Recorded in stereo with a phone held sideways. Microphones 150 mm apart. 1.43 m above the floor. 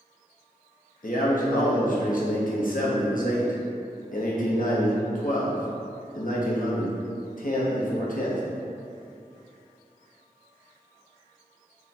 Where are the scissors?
I don't hear scissors.